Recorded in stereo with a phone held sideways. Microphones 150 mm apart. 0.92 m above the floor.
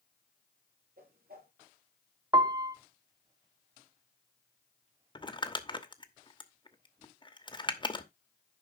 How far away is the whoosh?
About 3.5 m.